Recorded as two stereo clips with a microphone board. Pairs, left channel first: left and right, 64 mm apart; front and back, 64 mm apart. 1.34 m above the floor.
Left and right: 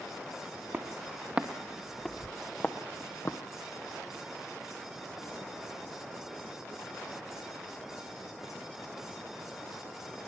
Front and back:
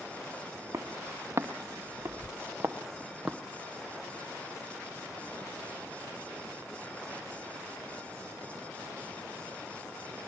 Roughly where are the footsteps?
Behind right.